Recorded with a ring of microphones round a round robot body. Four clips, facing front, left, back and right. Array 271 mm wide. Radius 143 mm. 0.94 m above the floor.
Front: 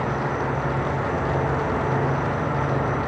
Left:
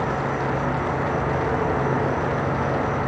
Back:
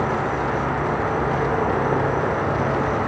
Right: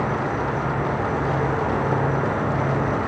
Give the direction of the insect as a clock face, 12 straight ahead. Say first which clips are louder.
Even, back 3 dB; 5 o'clock.